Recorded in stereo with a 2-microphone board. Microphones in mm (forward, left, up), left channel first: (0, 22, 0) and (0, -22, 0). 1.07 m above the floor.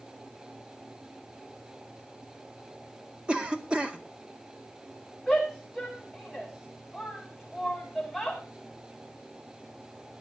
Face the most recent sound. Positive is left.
turn(degrees=-5)  # may be behind; listen again after turning